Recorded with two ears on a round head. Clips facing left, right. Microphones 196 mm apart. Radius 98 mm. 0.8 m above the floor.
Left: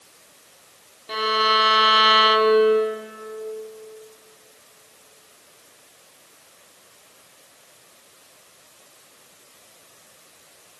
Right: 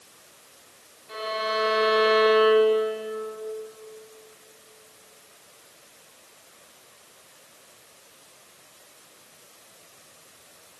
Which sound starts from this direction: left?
A violin, at 1.1 s.